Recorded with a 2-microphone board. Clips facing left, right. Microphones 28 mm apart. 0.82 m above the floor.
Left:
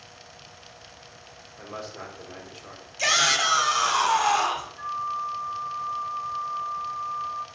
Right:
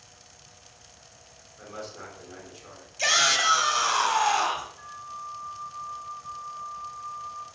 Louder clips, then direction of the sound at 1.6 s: Left 2 dB; 30° left (ahead or behind).